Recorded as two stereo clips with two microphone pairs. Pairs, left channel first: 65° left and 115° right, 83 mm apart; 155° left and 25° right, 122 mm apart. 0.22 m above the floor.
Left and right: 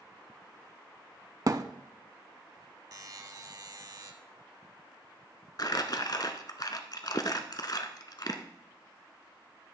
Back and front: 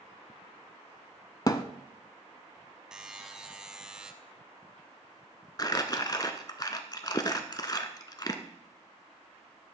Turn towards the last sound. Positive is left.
turn(degrees=95)